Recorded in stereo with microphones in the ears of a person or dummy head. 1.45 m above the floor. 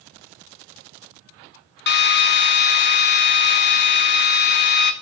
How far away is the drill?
About 0.6 m.